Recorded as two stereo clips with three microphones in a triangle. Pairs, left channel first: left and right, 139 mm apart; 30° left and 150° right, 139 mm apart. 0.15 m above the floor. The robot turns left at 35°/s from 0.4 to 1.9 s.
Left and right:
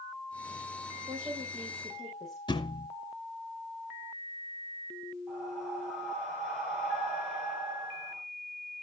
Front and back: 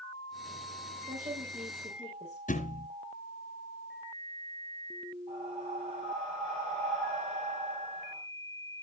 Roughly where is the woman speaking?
Behind right.